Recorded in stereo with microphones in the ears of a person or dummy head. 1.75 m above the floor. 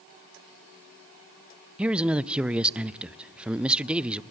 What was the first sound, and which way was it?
A man speaking, 5° right (ahead or behind).